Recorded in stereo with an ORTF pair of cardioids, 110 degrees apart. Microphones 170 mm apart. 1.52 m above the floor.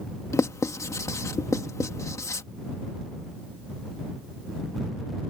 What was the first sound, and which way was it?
Writing, 20° left.